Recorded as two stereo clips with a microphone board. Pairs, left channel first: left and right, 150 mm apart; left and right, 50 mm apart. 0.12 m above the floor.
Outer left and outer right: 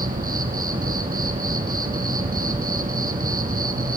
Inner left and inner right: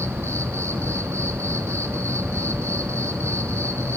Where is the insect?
70° right (ahead or behind), 1.2 m.